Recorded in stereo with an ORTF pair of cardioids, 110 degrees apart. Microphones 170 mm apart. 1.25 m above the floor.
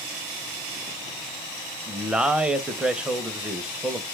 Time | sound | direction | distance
1.9 | a man speaking | 5° right | 0.6 m